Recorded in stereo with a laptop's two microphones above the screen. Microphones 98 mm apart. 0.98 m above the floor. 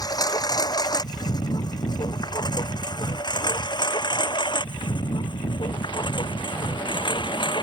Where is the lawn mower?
40° left (ahead or behind); by 7.6 s 50° left (ahead or behind).